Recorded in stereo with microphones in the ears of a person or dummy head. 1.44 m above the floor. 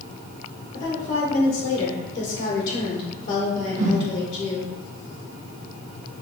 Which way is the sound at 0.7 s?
65° left (ahead or behind).